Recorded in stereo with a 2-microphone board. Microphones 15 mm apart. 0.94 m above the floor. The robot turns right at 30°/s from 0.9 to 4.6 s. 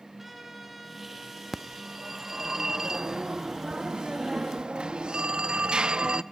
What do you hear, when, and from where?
0.2 s a trumpet: 165° right, 4.5 m; by 2.5 s 120° right, 4.5 m
1.5 s a phone ringing: straight behind, 0.5 m; by 6.2 s 90° right, 0.5 m